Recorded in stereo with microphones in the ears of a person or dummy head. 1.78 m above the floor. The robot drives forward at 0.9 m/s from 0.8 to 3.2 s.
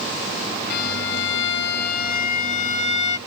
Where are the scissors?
I don't hear scissors.